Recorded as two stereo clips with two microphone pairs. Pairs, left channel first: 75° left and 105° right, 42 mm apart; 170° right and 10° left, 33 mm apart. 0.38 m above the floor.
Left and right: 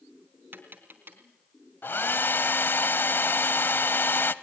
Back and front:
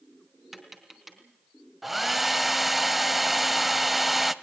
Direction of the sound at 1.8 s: 100° left.